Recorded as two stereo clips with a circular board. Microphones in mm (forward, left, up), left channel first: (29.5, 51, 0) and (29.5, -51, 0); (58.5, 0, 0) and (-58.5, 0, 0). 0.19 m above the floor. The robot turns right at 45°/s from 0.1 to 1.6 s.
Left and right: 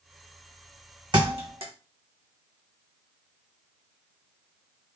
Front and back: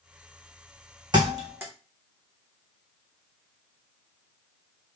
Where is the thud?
130° right, 1.0 m; by 1.7 s 110° right, 1.0 m.